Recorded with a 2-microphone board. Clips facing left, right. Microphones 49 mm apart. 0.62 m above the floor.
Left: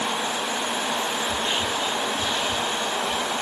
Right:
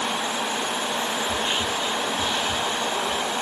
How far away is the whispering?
About 1.4 m.